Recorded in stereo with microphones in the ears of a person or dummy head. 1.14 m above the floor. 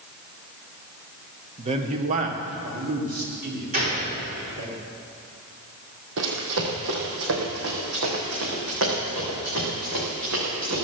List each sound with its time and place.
1.6 s a man speaking: 30° right (ahead or behind), 1.1 m; by 4.7 s 50° right (ahead or behind), 3.5 m
3.7 s a gunshot: 45° right (ahead or behind), 4 m
6.2 s running footsteps: 65° right (ahead or behind), 2.5 m; by 10.8 s 70° right (ahead or behind), 6.5 m